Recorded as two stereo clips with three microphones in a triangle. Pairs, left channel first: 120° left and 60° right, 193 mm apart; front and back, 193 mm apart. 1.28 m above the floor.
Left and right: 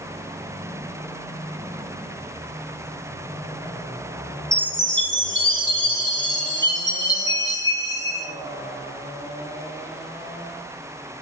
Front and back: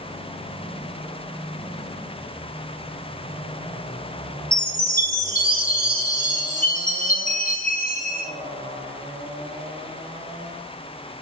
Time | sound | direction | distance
4.5 | a chime | 45° right | 1.4 m